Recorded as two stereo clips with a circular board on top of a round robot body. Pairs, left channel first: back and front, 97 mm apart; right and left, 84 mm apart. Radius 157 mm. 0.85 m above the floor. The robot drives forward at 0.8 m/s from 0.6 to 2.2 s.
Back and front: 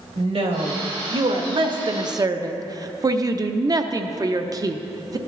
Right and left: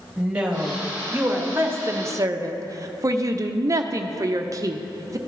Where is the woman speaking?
15° left, 1.9 m; by 5.2 s 45° left, 0.8 m.